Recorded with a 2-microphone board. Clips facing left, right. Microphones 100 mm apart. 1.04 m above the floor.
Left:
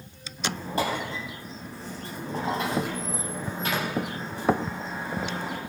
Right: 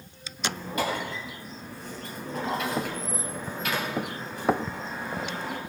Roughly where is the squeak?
Left.